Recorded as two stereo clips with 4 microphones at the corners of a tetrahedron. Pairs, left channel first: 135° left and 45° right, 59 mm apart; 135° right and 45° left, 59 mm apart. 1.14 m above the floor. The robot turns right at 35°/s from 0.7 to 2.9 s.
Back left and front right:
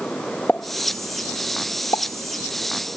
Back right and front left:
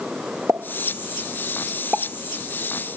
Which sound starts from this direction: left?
A pop, at 0.5 s.